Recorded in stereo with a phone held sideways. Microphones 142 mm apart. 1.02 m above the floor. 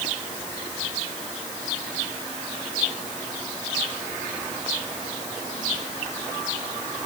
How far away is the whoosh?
I don't hear a whoosh.